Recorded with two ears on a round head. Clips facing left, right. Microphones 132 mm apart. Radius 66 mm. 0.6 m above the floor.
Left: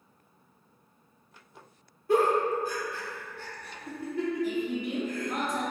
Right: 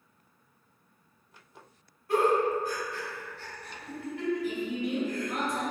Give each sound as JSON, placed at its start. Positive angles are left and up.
{"t": 2.1, "sound": "a giggle", "side_deg": 75, "distance_m": 0.7}
{"t": 4.4, "sound": "a woman speaking", "side_deg": 40, "distance_m": 1.2}